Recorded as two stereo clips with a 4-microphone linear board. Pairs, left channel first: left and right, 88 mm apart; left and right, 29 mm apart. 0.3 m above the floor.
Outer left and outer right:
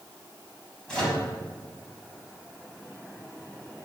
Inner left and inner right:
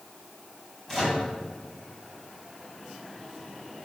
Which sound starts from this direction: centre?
A microwave, at 0.9 s.